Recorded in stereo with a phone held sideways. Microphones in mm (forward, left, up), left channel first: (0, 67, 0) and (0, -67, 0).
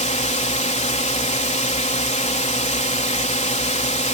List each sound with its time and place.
0.0 s a drone: 60° left (ahead or behind)